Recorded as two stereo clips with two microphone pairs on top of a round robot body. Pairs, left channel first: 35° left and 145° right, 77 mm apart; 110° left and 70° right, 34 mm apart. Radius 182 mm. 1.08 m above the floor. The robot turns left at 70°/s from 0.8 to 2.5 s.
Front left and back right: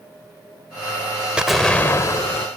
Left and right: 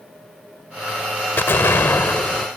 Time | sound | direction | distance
1.4 | an explosion | 135° left | ?